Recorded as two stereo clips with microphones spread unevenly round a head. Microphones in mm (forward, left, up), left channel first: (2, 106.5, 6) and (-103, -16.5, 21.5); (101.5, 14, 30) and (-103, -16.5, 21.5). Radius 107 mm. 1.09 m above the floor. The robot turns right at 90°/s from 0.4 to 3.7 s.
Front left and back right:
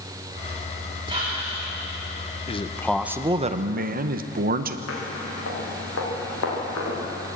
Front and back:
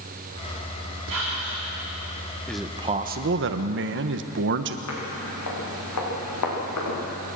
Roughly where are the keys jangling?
No keys jangling in this recording.